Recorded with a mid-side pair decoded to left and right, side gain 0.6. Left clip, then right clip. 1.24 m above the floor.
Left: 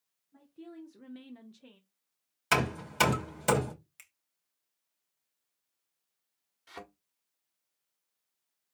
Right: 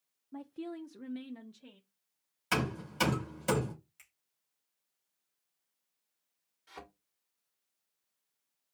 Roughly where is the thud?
Ahead left.